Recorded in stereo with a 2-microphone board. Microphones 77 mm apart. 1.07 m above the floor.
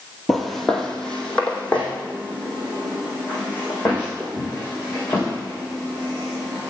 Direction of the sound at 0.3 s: Centre (ahead or behind).